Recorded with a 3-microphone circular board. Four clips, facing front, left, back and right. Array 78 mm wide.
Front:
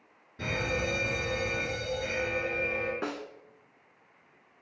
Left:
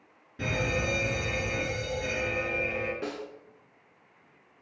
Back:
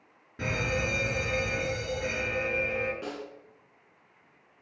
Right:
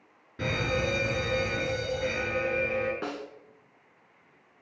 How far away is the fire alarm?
About 5 m.